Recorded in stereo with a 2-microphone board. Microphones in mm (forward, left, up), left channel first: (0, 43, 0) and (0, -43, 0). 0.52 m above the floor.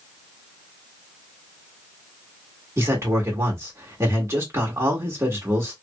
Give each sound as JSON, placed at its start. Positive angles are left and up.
{"t": 2.8, "sound": "a man speaking", "side_deg": -35, "distance_m": 1.4}